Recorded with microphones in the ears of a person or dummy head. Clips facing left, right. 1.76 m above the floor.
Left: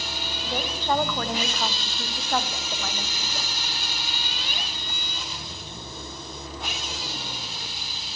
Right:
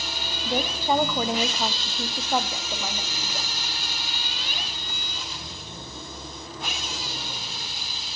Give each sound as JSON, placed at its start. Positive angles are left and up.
{"t": 0.5, "sound": "a woman speaking", "side_deg": -15, "distance_m": 1.1}